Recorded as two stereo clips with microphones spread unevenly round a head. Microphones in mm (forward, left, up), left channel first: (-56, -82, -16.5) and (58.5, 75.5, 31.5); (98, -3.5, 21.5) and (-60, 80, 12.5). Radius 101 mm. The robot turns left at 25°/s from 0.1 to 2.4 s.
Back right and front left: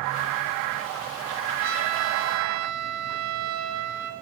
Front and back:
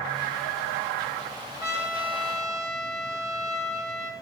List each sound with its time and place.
1.6 s a trumpet: 80° left, 6.5 m; by 4.1 s 60° left, 6.5 m